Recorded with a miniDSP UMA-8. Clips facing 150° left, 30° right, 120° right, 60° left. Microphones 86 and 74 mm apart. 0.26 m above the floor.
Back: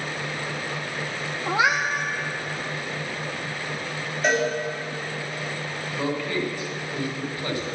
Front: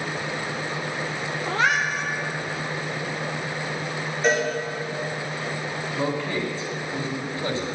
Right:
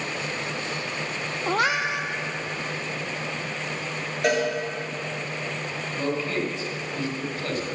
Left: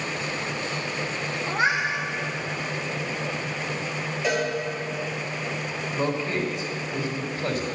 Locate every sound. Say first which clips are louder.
1.5 s a cat meowing: back 1 dB, right 1 dB; 130° right, 0.8 m
4.2 s a cowbell: even, right 3 dB; 120° right, 4 m
5.9 s a man speaking: even, left 1 dB; 10° left, 1.7 m